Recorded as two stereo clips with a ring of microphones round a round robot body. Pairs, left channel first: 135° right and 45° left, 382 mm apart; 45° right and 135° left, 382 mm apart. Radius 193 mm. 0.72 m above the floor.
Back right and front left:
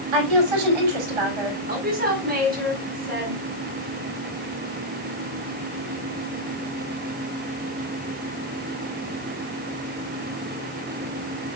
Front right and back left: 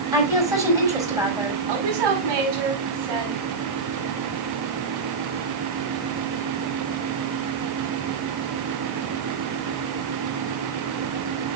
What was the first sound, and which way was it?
A woman speaking, 55° left.